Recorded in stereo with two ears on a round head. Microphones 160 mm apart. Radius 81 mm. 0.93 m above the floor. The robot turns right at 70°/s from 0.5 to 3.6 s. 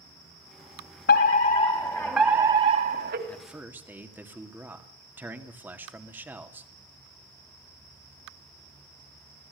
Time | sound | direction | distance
1.1 | a fire alarm | 105° left | 3 m
3.3 | a man speaking | 10° left (ahead or behind) | 2 m